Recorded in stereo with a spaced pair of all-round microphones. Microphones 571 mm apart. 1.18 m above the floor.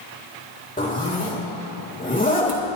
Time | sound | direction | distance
0.8 | a zipper | 15° left (ahead or behind) | 2 m